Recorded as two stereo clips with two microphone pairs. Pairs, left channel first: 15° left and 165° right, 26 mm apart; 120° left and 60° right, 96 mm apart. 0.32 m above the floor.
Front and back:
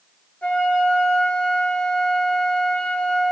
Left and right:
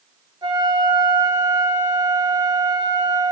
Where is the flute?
20° right, 0.8 m.